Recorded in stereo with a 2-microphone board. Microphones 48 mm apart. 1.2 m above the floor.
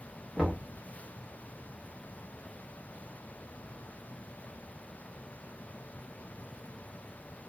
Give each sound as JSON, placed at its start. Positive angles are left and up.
{"t": 0.4, "sound": "knocking", "side_deg": -5, "distance_m": 0.9}